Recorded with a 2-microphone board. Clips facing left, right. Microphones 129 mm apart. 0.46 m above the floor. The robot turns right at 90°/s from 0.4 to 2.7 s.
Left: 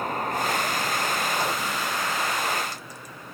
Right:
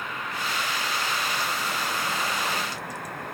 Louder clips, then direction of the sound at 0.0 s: Left 6 dB; 45° left.